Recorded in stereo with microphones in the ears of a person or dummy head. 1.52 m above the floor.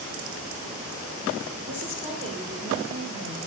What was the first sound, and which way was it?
A woman speaking, 40° right (ahead or behind).